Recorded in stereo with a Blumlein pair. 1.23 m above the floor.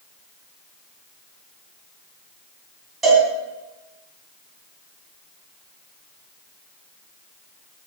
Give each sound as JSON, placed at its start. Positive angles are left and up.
{"t": 3.0, "sound": "a cowbell", "azimuth_deg": -15, "distance_m": 3.5}